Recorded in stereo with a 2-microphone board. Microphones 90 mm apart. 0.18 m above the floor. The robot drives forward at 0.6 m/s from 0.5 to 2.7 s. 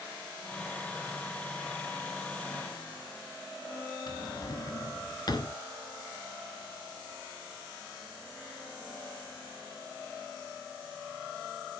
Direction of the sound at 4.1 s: 50° left (ahead or behind).